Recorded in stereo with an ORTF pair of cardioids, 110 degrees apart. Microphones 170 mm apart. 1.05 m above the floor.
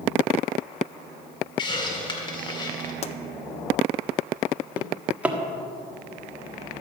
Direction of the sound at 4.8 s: 10° right.